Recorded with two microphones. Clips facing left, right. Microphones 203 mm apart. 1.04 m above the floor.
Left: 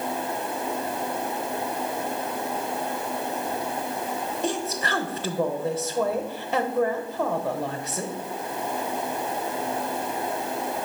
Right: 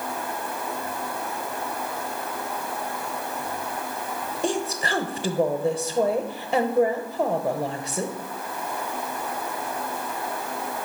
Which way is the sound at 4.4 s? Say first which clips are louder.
Right 4 dB; 15° right (ahead or behind).